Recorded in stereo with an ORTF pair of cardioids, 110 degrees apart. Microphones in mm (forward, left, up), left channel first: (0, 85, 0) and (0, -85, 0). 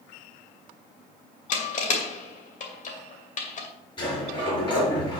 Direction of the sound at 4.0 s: 25° left.